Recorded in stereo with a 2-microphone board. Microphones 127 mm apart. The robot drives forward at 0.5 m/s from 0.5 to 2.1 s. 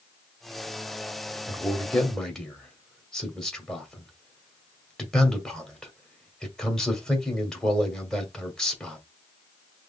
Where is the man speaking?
5° left (ahead or behind), 1.4 m.